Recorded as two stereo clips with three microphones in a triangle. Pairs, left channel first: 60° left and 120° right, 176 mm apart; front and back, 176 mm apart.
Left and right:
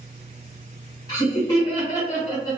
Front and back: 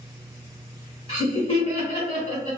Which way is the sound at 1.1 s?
15° left.